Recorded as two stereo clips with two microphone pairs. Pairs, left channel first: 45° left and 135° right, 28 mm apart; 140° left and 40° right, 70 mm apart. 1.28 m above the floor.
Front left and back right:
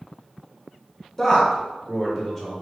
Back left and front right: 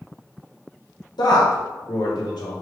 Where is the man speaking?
135° left, 1.2 m.